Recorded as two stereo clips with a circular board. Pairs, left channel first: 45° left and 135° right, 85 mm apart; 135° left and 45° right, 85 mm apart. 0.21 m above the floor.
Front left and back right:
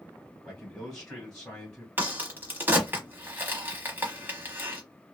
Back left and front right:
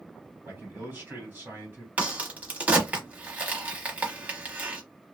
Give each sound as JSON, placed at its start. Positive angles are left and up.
{"t": 0.5, "sound": "a man speaking", "azimuth_deg": -35, "distance_m": 1.7}
{"t": 2.0, "sound": "a crack", "azimuth_deg": -100, "distance_m": 0.9}